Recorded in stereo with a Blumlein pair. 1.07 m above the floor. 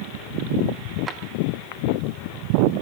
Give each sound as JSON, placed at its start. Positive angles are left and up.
{"t": 1.1, "sound": "a drawer", "azimuth_deg": -20, "distance_m": 0.6}